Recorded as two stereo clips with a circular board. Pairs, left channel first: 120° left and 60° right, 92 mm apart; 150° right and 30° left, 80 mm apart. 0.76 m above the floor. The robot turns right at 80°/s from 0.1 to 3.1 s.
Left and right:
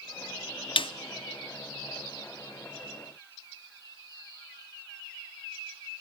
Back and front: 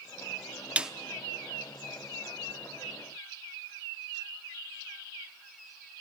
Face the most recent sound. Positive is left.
turn(degrees=-70)